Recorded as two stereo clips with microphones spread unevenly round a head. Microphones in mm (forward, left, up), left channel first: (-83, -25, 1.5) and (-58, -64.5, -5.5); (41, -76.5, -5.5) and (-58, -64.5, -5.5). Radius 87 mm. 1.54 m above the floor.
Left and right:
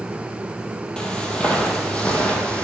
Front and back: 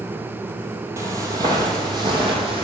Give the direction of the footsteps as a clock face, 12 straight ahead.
7 o'clock.